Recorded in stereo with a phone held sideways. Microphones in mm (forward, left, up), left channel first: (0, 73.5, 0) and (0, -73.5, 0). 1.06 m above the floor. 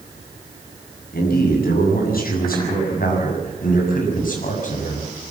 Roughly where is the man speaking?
Left.